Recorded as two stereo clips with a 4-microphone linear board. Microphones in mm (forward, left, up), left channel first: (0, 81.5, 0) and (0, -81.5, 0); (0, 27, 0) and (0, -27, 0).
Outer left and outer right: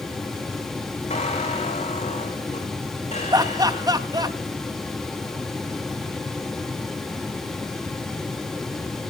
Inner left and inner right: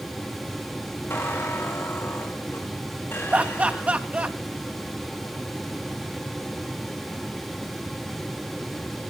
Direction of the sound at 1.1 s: 45° left (ahead or behind).